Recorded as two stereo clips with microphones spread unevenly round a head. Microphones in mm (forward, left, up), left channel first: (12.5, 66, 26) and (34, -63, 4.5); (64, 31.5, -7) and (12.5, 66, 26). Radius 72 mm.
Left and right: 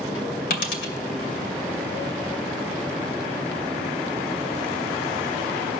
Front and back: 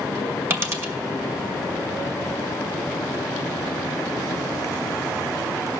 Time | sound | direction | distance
0.5 | a dropped coin | 120° left | 2.5 m